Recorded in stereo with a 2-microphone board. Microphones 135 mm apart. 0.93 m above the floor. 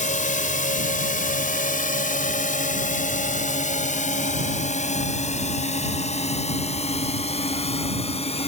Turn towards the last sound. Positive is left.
turn(degrees=50)  # may be behind; listen again after turning